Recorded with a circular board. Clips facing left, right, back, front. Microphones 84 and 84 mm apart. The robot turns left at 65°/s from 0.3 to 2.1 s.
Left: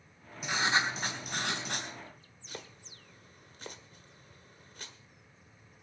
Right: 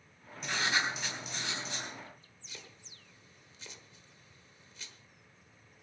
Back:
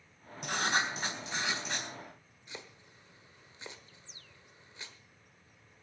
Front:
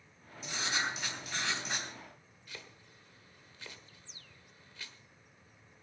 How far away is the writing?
About 3.5 m.